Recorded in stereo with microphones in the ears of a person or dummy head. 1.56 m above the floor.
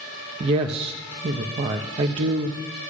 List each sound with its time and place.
0.4 s a woman speaking: 35° right (ahead or behind), 0.6 m